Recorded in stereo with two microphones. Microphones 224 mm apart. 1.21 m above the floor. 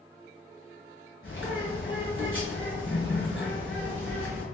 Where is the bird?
60° left (ahead or behind), 1.8 m.